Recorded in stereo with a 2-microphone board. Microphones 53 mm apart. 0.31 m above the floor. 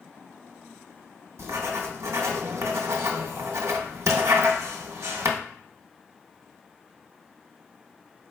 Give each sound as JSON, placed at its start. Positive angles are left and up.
{"t": 1.4, "sound": "writing", "side_deg": -70, "distance_m": 0.6}